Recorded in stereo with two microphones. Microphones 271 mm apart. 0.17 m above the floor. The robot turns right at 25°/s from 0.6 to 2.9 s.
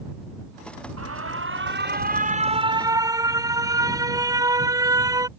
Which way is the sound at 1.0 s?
60° right.